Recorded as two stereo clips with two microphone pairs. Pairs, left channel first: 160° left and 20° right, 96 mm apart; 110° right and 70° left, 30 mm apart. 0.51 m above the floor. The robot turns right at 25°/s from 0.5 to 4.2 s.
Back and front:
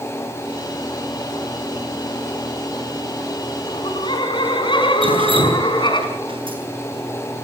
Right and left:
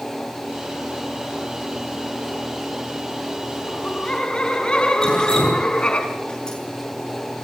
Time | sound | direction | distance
3.7 | laughter | straight behind | 5 m
5.0 | dripping | 45° right | 8 m